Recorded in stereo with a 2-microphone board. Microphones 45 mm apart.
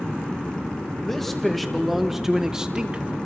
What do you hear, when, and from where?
1.0 s a man speaking: 10° left (ahead or behind), 2 m; by 3.1 s 25° right (ahead or behind), 1.3 m